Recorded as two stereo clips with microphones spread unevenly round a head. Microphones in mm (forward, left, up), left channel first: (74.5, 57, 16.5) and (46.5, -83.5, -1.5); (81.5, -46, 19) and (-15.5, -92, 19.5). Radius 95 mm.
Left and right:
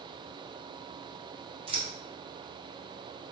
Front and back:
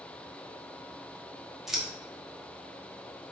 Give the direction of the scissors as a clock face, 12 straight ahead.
2 o'clock.